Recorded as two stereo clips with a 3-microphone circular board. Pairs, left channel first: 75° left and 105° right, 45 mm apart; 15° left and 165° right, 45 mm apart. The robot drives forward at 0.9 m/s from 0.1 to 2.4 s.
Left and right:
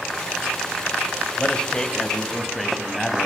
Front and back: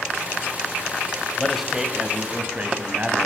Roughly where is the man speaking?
Left.